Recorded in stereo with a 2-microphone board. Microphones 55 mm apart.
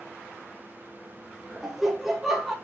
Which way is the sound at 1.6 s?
5° right (ahead or behind).